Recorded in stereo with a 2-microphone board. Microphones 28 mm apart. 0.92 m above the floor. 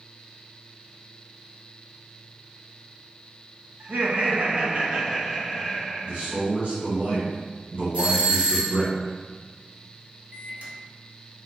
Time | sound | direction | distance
3.8 | laughter | 75° right (ahead or behind) | 1.2 m
6.0 | a man speaking | 60° right (ahead or behind) | 1.5 m
7.9 | a doorbell | 50° right (ahead or behind) | 1.8 m
10.3 | a microwave | 55° right (ahead or behind) | 1.0 m